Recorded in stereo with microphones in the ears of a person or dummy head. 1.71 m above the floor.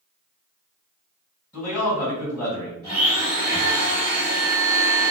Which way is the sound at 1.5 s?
15° left (ahead or behind).